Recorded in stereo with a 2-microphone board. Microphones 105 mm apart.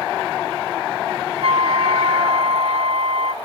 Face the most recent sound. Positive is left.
turn(degrees=-65)  # may be behind; listen again after turning